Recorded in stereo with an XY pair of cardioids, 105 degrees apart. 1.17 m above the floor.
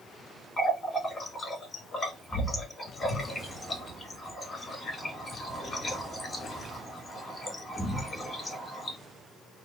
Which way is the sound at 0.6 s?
30° left.